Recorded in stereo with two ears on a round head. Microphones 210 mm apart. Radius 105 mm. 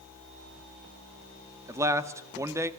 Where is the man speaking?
15° right (ahead or behind), 1.5 m.